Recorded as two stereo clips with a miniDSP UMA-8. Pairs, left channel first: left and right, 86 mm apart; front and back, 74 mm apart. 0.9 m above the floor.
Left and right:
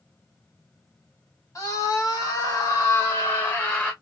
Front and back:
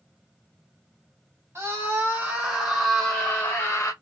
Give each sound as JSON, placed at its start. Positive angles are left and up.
{"t": 1.6, "sound": "a scream", "azimuth_deg": 135, "distance_m": 1.3}